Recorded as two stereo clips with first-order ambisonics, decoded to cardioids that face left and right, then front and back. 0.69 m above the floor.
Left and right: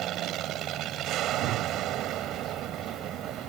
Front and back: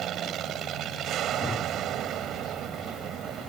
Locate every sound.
0.0 s an aircraft: 135° right
1.3 s a whoosh: 75° right